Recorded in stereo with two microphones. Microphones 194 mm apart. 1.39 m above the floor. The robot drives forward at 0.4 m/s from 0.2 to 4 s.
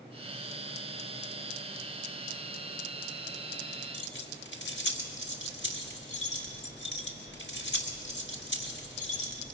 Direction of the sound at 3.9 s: 70° left (ahead or behind).